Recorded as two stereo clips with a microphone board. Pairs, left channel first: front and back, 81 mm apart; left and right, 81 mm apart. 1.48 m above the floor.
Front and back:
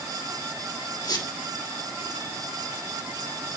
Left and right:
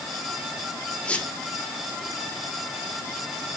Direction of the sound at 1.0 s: 25° left.